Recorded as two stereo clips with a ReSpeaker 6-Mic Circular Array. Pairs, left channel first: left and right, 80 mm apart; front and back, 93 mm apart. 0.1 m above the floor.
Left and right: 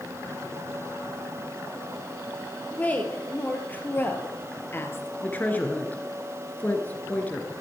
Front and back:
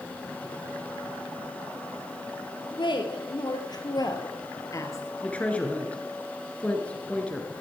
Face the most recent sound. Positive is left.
turn(degrees=55)